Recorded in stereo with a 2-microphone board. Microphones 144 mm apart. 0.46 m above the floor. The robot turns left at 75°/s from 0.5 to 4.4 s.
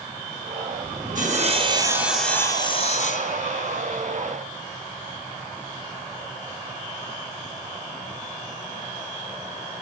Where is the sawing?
105° right, 3 m; by 3.8 s 60° left, 3 m.